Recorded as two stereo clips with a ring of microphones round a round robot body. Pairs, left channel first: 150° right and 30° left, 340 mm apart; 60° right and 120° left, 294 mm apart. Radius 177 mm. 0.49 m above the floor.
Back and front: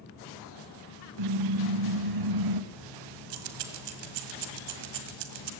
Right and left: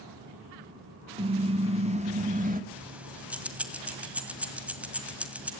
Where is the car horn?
50° left, 3.5 m; by 2.6 s 60° left, 1.7 m.